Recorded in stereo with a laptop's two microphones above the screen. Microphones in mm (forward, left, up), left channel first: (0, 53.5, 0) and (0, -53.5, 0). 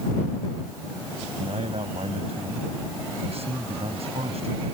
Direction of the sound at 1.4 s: 70° right (ahead or behind).